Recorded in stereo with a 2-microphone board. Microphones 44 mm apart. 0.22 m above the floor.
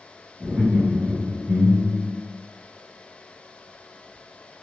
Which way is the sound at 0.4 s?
30° right (ahead or behind).